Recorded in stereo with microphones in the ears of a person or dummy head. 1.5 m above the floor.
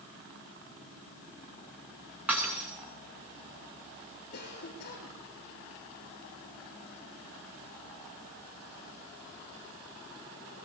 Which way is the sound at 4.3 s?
60° left (ahead or behind).